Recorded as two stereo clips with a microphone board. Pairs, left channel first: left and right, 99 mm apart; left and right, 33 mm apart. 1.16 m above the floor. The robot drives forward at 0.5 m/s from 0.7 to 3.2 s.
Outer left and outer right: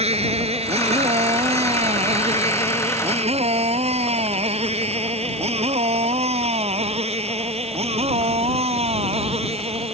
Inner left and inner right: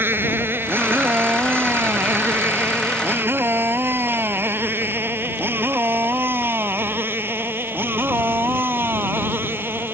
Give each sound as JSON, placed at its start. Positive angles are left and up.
{"t": 0.0, "sound": "a motorcycle", "side_deg": -80}